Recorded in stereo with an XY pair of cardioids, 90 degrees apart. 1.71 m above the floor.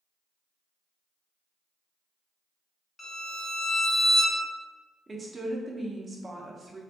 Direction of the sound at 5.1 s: 30° right.